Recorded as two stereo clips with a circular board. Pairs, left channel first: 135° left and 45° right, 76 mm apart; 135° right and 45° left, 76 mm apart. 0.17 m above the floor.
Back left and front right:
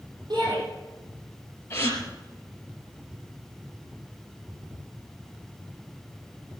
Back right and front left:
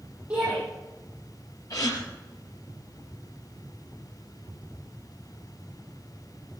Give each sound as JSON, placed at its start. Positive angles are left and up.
{"t": 0.3, "sound": "a shout", "azimuth_deg": -30, "distance_m": 7.5}
{"t": 1.7, "sound": "a gasp", "azimuth_deg": -170, "distance_m": 4.0}